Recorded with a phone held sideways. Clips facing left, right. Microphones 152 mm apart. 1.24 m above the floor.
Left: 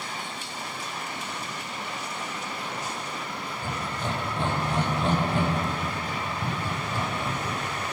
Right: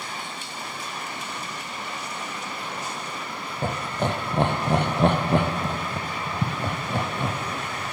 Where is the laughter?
65° right (ahead or behind), 0.5 m.